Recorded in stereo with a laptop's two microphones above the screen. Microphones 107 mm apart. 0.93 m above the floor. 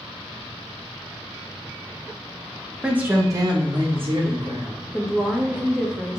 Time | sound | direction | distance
2.8 | a woman speaking | 5° right (ahead or behind) | 0.8 m
4.9 | a woman speaking | 5° right (ahead or behind) | 1.2 m